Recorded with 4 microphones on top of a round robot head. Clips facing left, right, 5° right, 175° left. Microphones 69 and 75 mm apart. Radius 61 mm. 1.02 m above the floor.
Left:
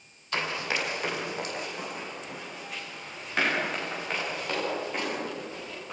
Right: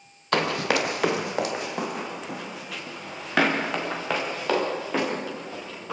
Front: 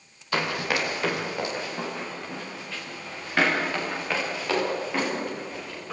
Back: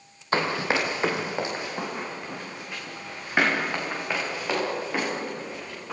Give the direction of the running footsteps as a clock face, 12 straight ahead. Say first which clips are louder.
Right 7 dB, back 2 dB; 4 o'clock.